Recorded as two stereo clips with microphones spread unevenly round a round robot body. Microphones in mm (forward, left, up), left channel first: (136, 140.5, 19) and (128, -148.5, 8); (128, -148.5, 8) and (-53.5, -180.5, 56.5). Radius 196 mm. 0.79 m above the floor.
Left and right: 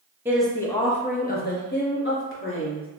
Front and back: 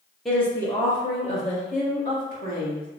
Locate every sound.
0.2 s a woman speaking: 30° right, 0.6 m; by 2.9 s 45° left, 1.5 m